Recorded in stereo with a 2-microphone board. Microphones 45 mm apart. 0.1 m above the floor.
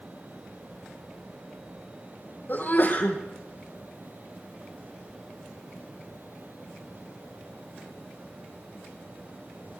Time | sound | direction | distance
2.5 | a sneeze | 45° left (ahead or behind) | 3.5 m